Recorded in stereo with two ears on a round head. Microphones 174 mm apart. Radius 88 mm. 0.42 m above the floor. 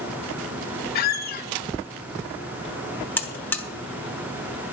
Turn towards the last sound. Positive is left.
turn(degrees=10)  # may be behind; listen again after turning